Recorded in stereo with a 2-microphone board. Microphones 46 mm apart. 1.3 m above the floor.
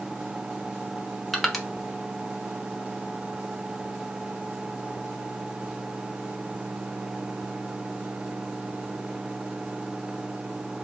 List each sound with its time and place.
1.3 s crushing: centre (ahead or behind), 0.7 m